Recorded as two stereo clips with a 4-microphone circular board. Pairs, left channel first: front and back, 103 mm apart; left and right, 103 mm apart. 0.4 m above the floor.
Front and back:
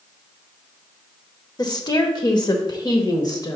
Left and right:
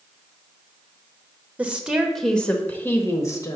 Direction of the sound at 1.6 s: 20° right.